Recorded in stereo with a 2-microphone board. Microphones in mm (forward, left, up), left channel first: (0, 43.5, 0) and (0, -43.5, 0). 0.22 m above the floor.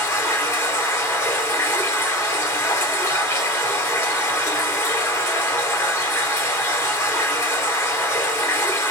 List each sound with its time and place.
0.0 s running water: 30° left (ahead or behind), 2 m